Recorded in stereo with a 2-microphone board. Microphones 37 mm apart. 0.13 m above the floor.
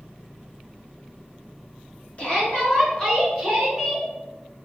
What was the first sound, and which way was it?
A shout, 40° left (ahead or behind).